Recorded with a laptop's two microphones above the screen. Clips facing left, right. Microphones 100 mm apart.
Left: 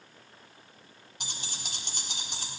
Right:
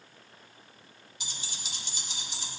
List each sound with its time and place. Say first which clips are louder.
1.2 s keys jangling: left 2 dB; 55° left (ahead or behind), 1.7 m